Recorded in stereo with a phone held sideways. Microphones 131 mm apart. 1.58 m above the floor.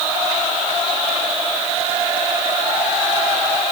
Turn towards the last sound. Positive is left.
No sound to turn to.